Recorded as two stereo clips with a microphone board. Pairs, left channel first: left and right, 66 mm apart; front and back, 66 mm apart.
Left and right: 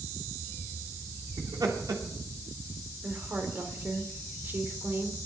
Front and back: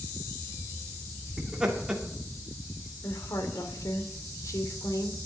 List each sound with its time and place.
1.4 s laughter: 100° right, 2.5 m
3.0 s a woman speaking: 30° right, 2.5 m